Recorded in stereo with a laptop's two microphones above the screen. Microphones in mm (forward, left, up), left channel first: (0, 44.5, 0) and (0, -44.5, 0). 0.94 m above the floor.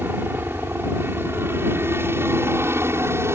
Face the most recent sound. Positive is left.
turn(degrees=-30)  # may be behind; listen again after turning